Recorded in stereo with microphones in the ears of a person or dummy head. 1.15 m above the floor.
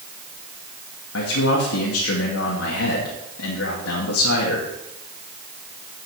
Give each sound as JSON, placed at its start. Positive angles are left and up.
{"t": 1.1, "sound": "a man speaking", "side_deg": 75, "distance_m": 2.0}